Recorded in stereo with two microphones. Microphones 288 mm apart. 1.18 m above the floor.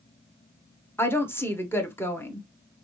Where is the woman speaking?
5° left (ahead or behind), 0.7 m.